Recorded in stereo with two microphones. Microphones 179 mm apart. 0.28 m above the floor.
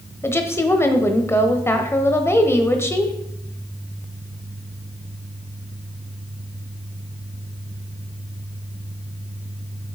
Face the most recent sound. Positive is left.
turn(degrees=15)  # may be behind; listen again after turning